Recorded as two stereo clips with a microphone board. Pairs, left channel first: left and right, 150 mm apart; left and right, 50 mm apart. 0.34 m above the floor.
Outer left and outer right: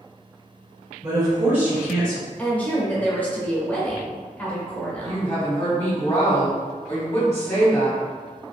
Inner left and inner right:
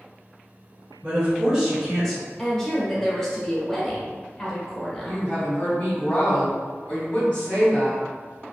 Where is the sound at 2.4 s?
10° left (ahead or behind), 0.8 m.